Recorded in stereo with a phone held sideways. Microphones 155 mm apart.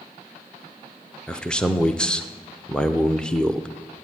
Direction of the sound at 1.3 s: 5° left (ahead or behind).